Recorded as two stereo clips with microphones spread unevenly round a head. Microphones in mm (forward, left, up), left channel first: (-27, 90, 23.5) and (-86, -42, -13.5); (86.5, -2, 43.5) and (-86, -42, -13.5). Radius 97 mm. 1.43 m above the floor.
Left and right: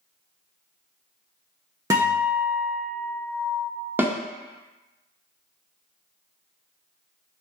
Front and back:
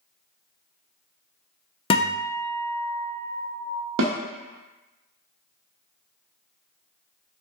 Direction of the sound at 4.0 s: 165° left.